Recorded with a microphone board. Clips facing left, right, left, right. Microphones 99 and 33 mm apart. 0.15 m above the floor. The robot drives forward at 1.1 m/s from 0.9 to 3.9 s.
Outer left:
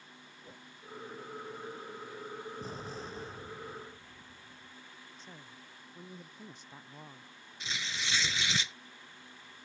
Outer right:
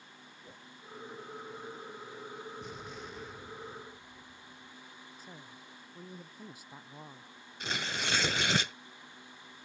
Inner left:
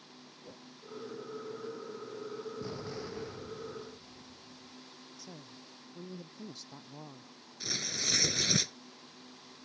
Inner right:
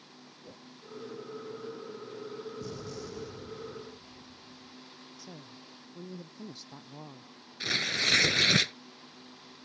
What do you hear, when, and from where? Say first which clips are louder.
0.4 s a whoosh: outer left 1 dB, inner right 1 dB; centre (ahead or behind)
2.6 s an explosion: outer left 2 dB, even; 35° left (ahead or behind); by 4.8 s 30° left (ahead or behind)
5.2 s a woman speaking: outer right 1 dB, inner right 2 dB; 10° right (ahead or behind)
7.6 s tearing paper: outer right 4 dB, inner right 8 dB; 65° right (ahead or behind)